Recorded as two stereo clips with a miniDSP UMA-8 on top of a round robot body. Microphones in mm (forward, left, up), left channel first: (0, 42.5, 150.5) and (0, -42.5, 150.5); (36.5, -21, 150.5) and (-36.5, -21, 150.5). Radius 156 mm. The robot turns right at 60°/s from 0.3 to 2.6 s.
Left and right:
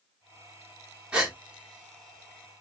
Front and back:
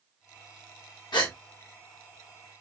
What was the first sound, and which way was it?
A gasp, 15° right.